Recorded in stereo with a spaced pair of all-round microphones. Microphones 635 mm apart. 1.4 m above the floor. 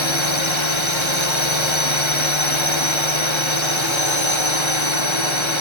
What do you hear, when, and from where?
0.0 s a drone: 45° left (ahead or behind)